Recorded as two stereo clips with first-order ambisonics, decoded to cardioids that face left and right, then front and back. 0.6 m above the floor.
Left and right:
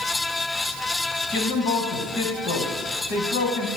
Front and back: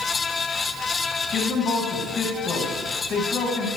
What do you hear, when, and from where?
1.3 s a man speaking: 55° left, 4 m